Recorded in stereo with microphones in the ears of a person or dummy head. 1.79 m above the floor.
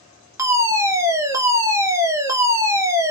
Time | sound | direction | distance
0.4 | a fire alarm | 15° right (ahead or behind) | 0.7 m